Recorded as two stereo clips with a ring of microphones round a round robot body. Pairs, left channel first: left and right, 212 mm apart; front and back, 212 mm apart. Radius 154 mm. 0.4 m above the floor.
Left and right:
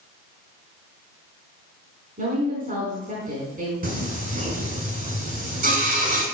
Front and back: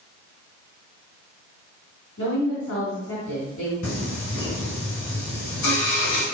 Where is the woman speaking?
40° right, 4.5 m.